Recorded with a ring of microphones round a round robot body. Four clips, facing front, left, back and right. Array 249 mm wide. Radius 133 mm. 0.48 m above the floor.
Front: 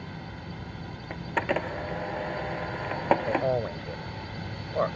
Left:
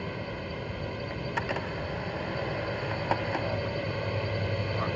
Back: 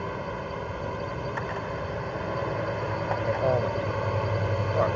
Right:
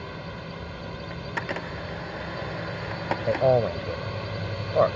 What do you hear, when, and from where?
0.0 s a drone: 160° left
1.1 s a camera shutter: 10° right
3.3 s a man speaking: 90° right